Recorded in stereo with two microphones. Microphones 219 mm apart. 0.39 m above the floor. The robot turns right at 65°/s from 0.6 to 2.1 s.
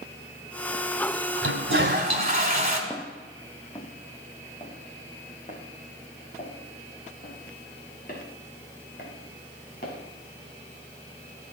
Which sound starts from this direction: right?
A toilet flushing, at 1.4 s.